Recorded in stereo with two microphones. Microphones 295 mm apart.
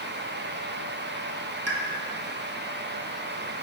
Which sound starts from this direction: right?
A pop, at 1.7 s.